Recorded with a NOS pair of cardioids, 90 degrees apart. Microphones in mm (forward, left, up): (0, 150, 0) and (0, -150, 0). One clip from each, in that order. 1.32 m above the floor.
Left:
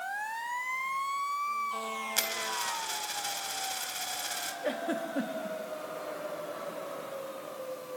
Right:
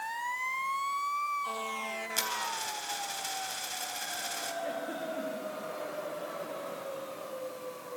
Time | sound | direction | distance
2.2 | a dropped coin | 15° left | 3.5 m
4.6 | a giggle | 70° left | 2.5 m